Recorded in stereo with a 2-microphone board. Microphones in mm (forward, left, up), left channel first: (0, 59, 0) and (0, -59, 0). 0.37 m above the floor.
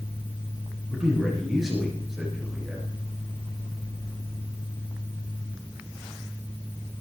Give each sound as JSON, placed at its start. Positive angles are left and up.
{"t": 0.9, "sound": "a man speaking", "side_deg": -5, "distance_m": 5.0}